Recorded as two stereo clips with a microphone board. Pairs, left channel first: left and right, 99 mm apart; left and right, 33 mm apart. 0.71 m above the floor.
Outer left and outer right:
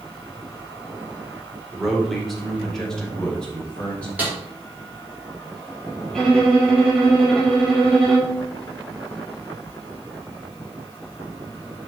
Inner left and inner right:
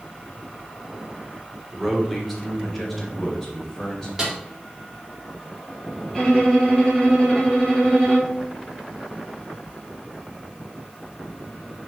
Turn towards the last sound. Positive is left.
turn(degrees=5)  # may be behind; listen again after turning